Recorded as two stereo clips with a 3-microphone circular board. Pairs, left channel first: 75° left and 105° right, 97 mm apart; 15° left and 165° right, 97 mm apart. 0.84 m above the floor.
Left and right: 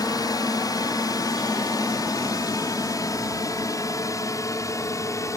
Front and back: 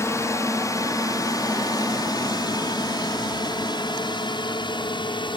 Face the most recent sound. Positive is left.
turn(degrees=25)